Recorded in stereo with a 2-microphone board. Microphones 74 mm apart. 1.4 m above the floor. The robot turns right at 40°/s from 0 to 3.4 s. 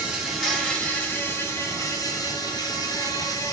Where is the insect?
15° right, 1.7 m; by 3.5 s 120° left, 1.7 m.